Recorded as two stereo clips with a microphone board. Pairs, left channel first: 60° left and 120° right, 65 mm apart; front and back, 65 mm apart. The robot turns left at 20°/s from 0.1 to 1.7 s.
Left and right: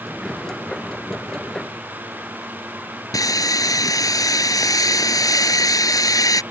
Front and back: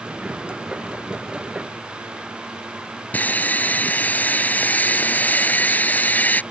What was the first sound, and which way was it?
Sawing, 60° left.